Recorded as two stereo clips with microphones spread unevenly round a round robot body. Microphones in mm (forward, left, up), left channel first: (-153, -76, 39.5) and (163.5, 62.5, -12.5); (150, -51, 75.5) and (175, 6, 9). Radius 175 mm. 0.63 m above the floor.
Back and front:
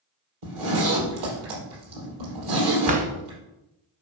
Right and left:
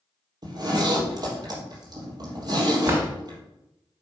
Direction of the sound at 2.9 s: 90° left.